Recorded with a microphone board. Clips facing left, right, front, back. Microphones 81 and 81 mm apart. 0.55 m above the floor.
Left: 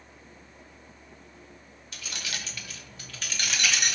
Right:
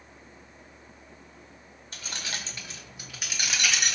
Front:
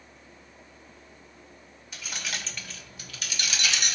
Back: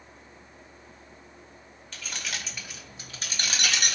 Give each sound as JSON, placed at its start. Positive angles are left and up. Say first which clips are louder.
{"t": 1.9, "sound": "keys jangling", "louder": "right 1 dB, even", "azimuth_deg": -70, "distance_m": 0.8}